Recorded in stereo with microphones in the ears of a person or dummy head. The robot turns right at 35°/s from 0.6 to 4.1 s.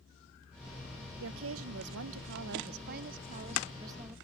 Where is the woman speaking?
115° right; by 4.2 s 15° right.